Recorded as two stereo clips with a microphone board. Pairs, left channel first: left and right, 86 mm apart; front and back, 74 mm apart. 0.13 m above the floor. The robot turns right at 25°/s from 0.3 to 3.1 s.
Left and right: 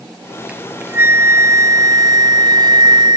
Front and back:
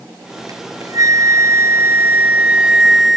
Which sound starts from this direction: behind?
A flute, at 0.5 s.